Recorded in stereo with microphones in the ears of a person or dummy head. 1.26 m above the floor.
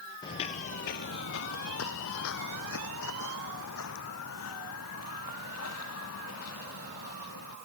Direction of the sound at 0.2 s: 20° left (ahead or behind).